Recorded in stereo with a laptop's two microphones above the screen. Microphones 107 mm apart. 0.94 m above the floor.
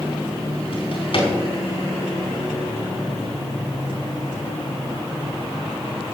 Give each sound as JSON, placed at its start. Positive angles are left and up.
{"t": 0.7, "sound": "a drawer", "side_deg": 55, "distance_m": 4.0}